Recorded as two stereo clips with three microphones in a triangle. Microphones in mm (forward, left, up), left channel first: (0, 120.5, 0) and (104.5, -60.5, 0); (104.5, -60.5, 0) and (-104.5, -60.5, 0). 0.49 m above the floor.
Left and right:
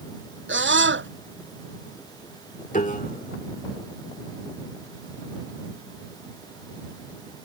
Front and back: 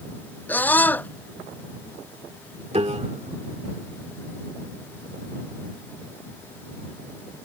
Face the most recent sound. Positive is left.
turn(degrees=140)